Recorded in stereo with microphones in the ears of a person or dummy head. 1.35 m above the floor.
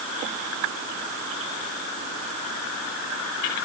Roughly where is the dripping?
No dripping in this recording.